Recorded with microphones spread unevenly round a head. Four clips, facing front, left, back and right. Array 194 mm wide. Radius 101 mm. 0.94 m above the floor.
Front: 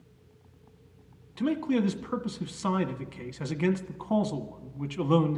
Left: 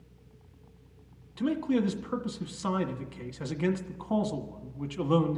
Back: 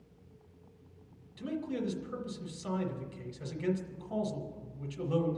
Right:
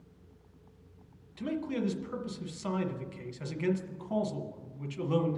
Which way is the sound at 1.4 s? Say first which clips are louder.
Left 6 dB, front 9 dB; 35° left.